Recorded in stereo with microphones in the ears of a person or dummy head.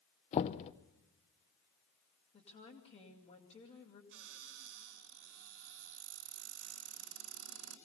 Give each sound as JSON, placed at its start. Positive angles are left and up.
{"t": 0.3, "sound": "knocking", "side_deg": 30, "distance_m": 0.7}
{"t": 2.3, "sound": "a woman speaking", "side_deg": 40, "distance_m": 2.5}
{"t": 4.1, "sound": "a cupboard door", "side_deg": -60, "distance_m": 3.0}